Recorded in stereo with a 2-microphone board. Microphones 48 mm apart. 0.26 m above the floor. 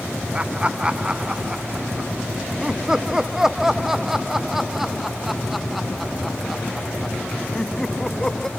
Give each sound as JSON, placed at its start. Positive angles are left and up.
{"t": 0.3, "sound": "laughter", "side_deg": -25}